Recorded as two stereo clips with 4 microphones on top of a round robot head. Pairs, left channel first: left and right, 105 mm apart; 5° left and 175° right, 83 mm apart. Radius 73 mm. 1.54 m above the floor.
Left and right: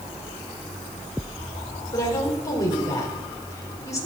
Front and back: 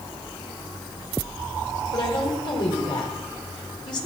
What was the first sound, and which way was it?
A woman speaking, 35° left.